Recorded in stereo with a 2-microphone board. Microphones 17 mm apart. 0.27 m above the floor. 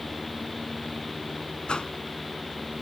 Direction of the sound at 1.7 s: 60° left (ahead or behind).